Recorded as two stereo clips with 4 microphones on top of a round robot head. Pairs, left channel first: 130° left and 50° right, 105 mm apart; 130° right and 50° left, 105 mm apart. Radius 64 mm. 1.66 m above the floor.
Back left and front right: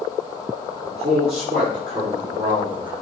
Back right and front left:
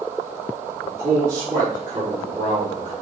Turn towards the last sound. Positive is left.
turn(degrees=0)